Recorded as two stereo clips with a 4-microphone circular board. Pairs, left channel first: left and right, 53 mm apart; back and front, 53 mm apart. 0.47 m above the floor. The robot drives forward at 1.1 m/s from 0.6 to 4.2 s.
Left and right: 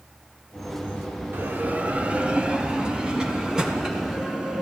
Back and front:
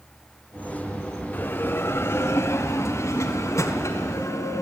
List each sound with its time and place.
1.3 s a bell: 135° right, 1.2 m; by 4.6 s 170° right, 4 m